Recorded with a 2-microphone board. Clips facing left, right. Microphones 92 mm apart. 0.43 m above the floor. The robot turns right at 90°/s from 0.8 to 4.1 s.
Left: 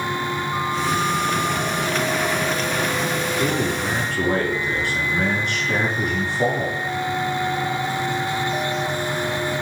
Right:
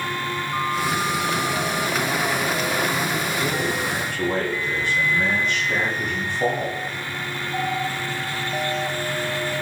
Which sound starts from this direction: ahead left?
A man speaking, at 3.4 s.